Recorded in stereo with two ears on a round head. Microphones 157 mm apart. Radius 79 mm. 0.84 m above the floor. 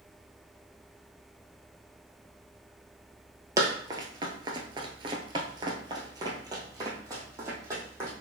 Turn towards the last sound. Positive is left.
turn(degrees=-15)  # may be behind; listen again after turning